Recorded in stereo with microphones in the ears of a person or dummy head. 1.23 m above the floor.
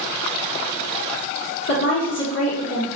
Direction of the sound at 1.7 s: 80° left.